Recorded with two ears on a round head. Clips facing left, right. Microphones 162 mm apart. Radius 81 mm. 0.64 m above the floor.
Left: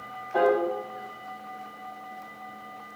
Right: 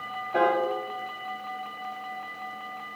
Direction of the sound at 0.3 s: 30° right (ahead or behind).